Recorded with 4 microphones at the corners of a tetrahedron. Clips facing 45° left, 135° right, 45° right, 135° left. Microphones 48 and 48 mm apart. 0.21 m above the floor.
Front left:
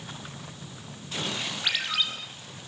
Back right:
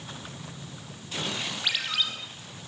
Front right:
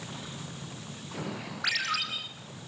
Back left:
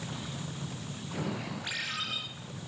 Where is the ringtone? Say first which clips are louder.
Front left 1 dB, front right 8 dB; 45° right, 4.5 m.